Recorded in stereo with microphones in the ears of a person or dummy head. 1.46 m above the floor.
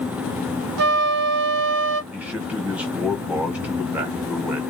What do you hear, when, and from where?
0.8 s a flute: 65° right (ahead or behind), 0.6 m
2.1 s a man speaking: 10° right (ahead or behind), 1.0 m